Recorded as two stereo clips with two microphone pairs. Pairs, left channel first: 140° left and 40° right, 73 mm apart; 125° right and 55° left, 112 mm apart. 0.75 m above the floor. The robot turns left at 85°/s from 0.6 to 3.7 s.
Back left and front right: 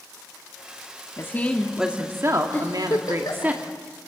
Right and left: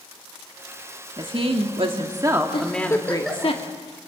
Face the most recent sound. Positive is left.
turn(degrees=110)